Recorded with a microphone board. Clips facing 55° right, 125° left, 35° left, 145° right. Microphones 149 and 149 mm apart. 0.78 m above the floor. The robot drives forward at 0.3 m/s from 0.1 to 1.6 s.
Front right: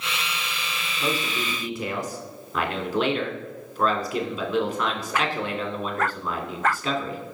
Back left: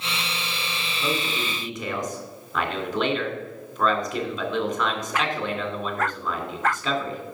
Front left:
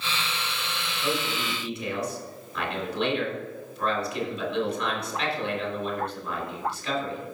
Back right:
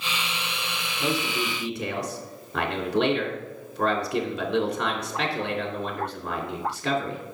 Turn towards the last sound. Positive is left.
turn(degrees=-140)